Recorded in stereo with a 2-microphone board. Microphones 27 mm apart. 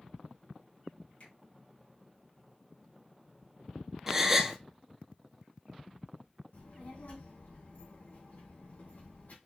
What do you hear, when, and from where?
1.2 s a finger snap: 60° left (ahead or behind), 3 m
4.1 s a gasp: 10° right (ahead or behind), 0.7 m
6.5 s a child speaking: 65° left (ahead or behind), 3 m